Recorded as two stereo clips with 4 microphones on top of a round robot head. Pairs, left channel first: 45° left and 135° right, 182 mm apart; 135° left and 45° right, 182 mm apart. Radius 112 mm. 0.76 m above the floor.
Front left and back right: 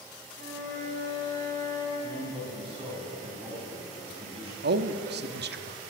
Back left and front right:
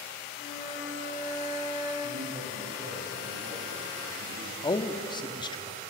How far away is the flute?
About 5 m.